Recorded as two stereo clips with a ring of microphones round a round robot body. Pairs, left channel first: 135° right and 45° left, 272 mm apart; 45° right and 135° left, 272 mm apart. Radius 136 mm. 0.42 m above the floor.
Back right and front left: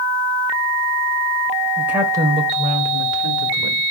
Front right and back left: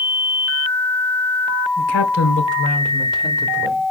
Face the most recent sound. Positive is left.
turn(degrees=50)